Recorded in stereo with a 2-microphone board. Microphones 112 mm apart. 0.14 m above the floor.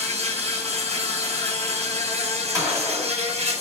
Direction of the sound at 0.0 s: 65° right (ahead or behind).